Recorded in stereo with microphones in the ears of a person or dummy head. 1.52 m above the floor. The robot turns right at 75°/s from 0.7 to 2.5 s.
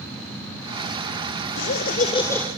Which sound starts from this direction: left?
Laughter, at 1.6 s.